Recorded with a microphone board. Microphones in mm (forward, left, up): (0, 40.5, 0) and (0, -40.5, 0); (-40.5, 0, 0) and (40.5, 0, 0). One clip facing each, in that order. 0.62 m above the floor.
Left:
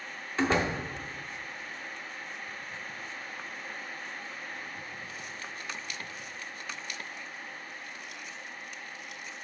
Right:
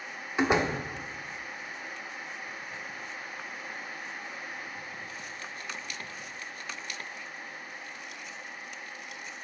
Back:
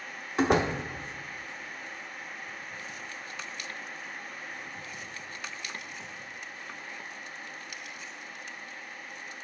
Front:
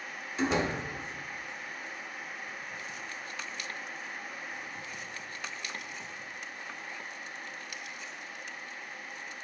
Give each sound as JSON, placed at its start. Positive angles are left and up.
{"t": 0.4, "sound": "a door slam", "azimuth_deg": -160, "distance_m": 0.7}